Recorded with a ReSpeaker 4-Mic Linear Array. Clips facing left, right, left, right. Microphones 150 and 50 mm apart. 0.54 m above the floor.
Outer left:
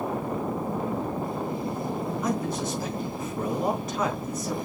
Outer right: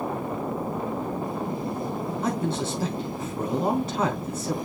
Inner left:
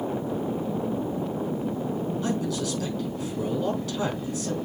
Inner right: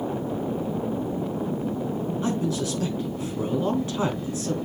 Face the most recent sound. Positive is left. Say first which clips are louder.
# outer right 3 dB, inner right 4 dB
turn(degrees=-30)  # may be behind; listen again after turning